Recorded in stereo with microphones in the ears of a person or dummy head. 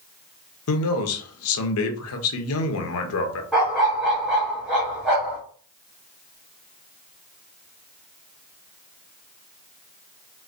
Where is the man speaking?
65° left (ahead or behind), 0.8 m.